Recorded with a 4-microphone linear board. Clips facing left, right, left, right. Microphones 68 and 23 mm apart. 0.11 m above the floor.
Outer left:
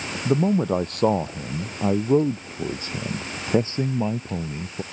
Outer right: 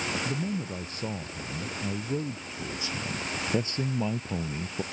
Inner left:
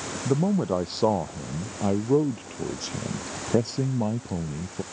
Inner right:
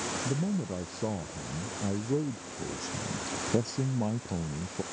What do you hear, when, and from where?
0.2 s a man speaking: 70° left (ahead or behind); by 4.8 s centre (ahead or behind)